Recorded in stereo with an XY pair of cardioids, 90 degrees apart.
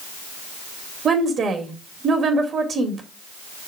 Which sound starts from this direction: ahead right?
A woman speaking, at 1.1 s.